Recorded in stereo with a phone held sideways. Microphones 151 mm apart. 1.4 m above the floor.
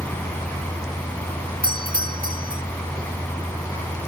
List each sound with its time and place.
0.0 s a fan: 10° left (ahead or behind)
1.6 s a doorbell: 70° right (ahead or behind)